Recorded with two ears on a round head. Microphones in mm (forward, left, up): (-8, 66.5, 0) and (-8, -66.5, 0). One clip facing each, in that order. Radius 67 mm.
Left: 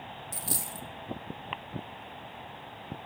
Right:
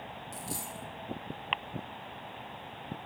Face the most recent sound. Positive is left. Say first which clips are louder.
# left 1 dB
turn(degrees=60)  # may be behind; listen again after turning